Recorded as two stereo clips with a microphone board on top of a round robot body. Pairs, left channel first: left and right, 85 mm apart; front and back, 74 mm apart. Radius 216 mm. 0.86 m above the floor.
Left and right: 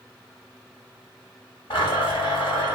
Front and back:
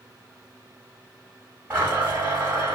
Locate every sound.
1.7 s a blender: 115° left, 1.6 m